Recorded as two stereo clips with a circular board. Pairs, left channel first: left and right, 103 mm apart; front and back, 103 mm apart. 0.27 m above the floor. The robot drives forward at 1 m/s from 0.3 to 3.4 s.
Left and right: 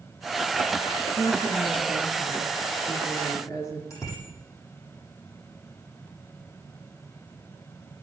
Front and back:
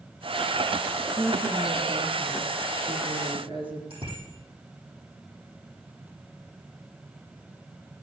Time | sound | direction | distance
1.2 | a woman speaking | 120° left | 3.5 m
3.9 | a bicycle bell | 150° left | 8.5 m